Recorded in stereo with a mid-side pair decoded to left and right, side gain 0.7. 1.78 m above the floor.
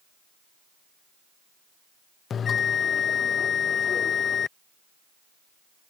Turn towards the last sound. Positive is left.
turn(degrees=35)